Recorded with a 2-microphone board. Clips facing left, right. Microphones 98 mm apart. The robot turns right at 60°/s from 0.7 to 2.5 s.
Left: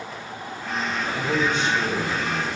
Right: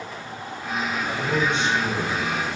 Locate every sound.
1.1 s a man speaking: 5° left, 4.5 m; by 2.5 s 90° left, 4.5 m